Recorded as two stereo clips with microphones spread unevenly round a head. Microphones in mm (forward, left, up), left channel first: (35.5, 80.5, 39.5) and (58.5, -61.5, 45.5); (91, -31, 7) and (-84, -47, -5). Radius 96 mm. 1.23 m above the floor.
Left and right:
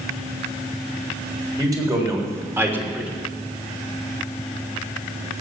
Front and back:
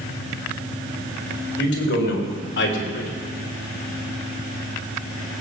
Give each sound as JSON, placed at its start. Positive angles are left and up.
{"t": 1.6, "sound": "a man speaking", "azimuth_deg": -15, "distance_m": 4.5}